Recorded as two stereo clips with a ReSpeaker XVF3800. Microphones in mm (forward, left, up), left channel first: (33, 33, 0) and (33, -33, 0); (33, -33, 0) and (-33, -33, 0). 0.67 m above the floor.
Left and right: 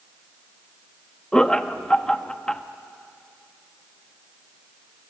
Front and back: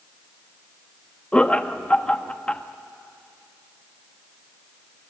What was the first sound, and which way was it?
Laughter, 35° left.